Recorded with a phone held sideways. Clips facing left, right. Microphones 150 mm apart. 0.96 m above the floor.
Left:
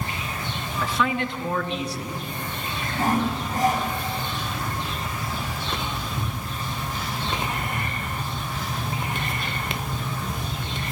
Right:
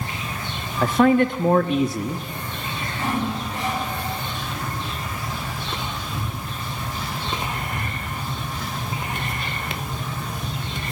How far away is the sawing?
About 9.5 m.